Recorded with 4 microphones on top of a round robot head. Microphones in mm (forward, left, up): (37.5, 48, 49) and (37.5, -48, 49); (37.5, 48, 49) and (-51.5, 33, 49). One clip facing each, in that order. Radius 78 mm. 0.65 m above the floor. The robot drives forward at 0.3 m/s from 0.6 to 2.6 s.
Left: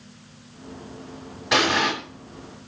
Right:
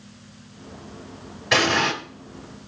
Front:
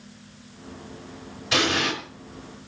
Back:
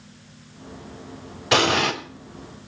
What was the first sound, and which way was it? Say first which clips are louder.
An explosion: even, back 5 dB; 170° left.